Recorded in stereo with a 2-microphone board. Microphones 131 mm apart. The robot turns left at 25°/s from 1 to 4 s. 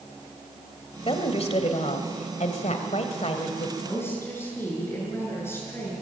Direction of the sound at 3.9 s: 15° left (ahead or behind).